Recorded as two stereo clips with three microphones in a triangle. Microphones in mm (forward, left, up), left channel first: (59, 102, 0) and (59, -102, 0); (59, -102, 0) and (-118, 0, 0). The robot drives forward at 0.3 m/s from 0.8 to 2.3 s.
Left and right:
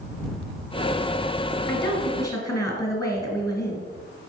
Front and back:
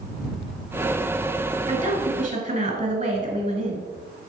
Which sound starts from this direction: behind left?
A woman speaking, at 1.7 s.